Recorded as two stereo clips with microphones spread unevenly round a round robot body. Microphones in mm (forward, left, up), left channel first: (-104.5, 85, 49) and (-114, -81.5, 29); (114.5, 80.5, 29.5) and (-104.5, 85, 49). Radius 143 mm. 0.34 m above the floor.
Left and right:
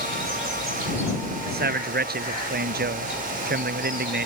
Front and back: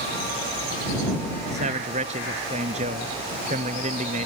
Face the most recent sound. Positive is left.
turn(degrees=-115)